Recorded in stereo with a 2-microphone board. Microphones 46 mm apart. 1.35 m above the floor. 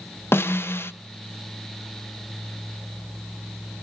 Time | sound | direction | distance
0.3 | a snare drum | 55° left (ahead or behind) | 0.7 m